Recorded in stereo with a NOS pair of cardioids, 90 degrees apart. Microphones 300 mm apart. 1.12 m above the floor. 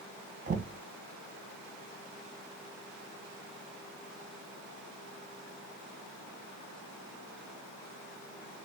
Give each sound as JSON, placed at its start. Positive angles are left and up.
{"t": 0.5, "sound": "knocking", "azimuth_deg": -25, "distance_m": 0.6}